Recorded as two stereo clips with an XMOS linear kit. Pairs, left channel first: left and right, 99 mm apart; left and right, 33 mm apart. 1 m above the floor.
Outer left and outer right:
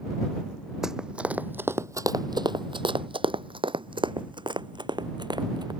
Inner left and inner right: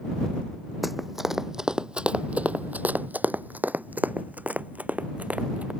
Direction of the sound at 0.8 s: 5° right (ahead or behind).